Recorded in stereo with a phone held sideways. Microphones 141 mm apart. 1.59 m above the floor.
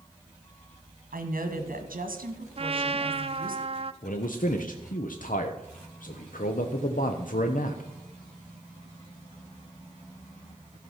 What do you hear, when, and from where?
1.1 s a woman speaking: 80° right, 1.7 m
2.6 s a trumpet: 40° right (ahead or behind), 0.5 m
4.0 s a man speaking: 70° left (ahead or behind), 0.8 m